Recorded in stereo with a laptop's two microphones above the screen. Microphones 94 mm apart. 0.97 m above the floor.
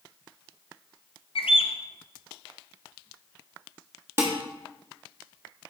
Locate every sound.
1.4 s a bird: 65° left (ahead or behind), 0.6 m
4.2 s dishes clattering: 25° right (ahead or behind), 0.9 m